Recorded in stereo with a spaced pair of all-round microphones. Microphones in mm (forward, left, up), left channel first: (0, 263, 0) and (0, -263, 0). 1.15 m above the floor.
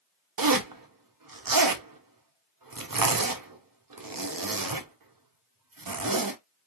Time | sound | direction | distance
0.4 | a zipper | 40° right (ahead or behind) | 0.5 m